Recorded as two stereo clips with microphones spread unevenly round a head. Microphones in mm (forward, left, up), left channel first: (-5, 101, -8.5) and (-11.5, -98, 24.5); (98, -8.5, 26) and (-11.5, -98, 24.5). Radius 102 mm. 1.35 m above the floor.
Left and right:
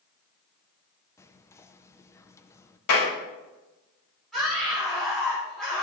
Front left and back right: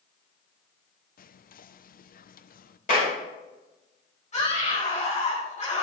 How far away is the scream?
About 6 m.